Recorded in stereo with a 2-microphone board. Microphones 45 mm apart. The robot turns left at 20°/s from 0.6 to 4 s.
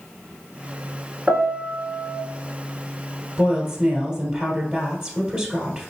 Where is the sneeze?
I don't hear a sneeze.